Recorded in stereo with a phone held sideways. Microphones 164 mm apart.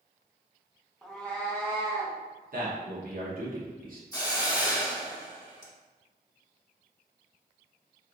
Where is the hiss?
20° left (ahead or behind), 0.9 m.